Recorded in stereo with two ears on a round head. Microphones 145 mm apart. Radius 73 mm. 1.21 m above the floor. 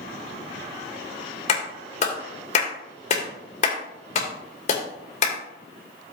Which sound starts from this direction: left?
A clap, at 1.5 s.